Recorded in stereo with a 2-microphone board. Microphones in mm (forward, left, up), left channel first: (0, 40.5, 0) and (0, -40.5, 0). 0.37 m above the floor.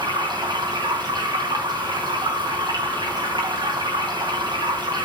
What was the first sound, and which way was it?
Running water, 55° right (ahead or behind).